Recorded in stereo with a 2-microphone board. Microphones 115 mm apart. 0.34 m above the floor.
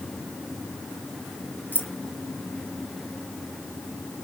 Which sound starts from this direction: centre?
Keys jangling, at 1.7 s.